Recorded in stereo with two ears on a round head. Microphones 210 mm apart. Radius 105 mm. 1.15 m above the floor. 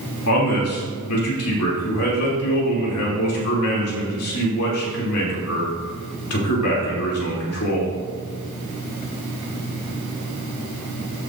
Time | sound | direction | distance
0.3 | a man speaking | 80° left | 3 m